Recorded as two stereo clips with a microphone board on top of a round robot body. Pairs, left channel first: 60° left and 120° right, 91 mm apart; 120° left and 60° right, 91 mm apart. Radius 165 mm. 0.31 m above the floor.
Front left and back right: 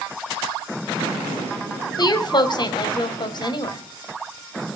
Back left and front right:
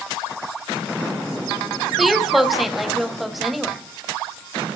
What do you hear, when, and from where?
2.0 s a woman speaking: 30° left, 3 m